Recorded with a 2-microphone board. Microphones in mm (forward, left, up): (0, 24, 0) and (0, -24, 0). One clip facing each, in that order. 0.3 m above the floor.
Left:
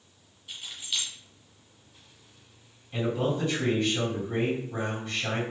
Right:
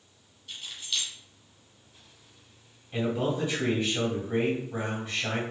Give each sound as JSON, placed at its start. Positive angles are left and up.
{"t": 0.5, "sound": "keys jangling", "side_deg": 10, "distance_m": 1.3}
{"t": 2.9, "sound": "a man speaking", "side_deg": -10, "distance_m": 1.8}